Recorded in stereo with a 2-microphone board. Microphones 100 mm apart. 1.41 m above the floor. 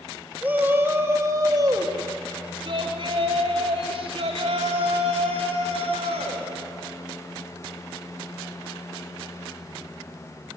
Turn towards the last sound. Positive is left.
turn(degrees=-90)